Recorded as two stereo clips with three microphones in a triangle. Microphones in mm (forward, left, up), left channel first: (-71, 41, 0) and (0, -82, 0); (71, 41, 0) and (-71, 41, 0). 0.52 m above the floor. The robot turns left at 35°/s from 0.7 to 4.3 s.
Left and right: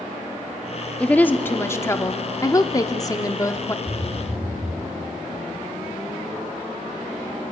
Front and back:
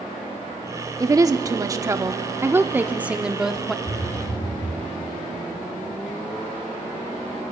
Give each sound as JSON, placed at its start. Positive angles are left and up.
{"t": 1.0, "sound": "a woman speaking", "azimuth_deg": -175, "distance_m": 0.8}
{"t": 3.9, "sound": "a phone buzzing", "azimuth_deg": 5, "distance_m": 4.5}